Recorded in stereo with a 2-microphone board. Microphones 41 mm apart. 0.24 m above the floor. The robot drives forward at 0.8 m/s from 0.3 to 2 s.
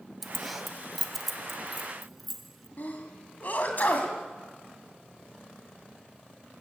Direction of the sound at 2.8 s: 45° left (ahead or behind).